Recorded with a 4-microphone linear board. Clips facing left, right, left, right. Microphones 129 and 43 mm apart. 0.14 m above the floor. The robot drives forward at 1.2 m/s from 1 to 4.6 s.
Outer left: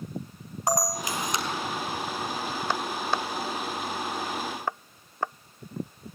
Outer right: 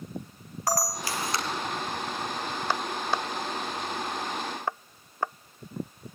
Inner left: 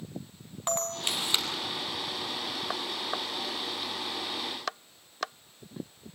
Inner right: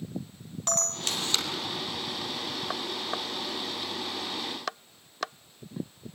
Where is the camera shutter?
20° left (ahead or behind), 2.5 m; by 1.4 s 15° left (ahead or behind), 3 m.